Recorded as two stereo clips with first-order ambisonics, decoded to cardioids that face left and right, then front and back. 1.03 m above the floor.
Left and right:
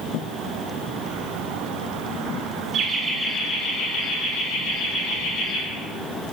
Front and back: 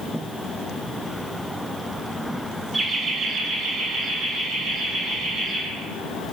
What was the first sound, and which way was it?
Laughter, 95° right.